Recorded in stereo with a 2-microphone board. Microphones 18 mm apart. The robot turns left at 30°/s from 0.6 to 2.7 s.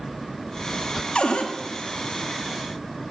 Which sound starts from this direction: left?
A cupboard door, at 1.1 s.